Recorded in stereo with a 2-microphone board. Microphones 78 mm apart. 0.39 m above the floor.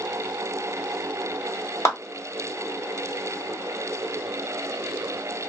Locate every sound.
1.9 s a clap: 35° left (ahead or behind), 1.6 m